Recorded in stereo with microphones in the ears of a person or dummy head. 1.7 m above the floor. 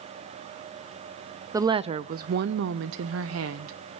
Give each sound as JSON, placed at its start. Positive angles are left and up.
{"t": 1.5, "sound": "a woman speaking", "side_deg": -15, "distance_m": 0.6}